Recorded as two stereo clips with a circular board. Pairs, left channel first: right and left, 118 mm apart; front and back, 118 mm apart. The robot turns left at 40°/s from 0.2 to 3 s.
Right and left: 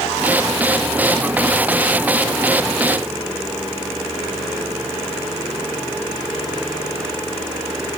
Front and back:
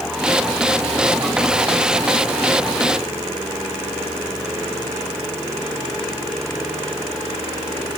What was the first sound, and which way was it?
Only background noise.